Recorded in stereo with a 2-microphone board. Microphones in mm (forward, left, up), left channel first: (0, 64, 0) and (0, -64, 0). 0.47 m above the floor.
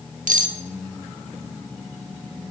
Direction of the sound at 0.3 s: 70° right (ahead or behind).